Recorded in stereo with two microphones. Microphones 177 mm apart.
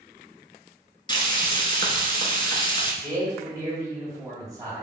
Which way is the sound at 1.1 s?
25° left (ahead or behind).